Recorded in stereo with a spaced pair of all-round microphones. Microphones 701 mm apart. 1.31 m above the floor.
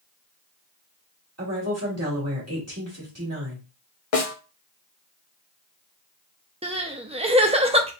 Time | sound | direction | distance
1.4 | a woman speaking | 20° right (ahead or behind) | 2 m
4.1 | a snare drum | 55° left (ahead or behind) | 0.7 m
6.6 | crying | 10° right (ahead or behind) | 0.5 m